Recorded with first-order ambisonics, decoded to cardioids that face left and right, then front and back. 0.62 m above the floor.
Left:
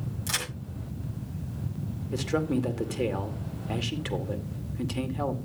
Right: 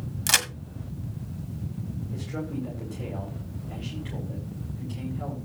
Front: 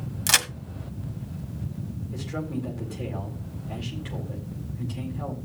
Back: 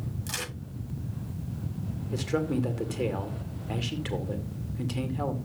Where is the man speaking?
120° left, 2.5 m.